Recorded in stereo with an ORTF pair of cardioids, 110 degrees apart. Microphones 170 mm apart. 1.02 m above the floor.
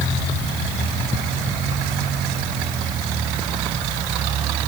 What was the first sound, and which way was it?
Only background noise.